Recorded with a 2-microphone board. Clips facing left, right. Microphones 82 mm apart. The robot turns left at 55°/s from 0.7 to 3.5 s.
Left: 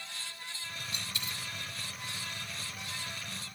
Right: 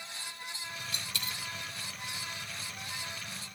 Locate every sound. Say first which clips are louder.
0.9 s a dropped coin: right 1 dB; 75° right (ahead or behind), 1.0 m; by 1.4 s 65° right (ahead or behind), 1.0 m